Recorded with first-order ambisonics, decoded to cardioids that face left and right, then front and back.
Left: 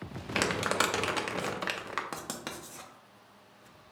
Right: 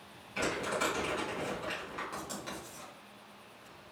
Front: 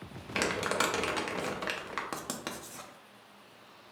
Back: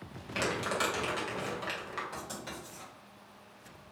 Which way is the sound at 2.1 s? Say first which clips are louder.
Left 2 dB, front 3 dB; 40° left.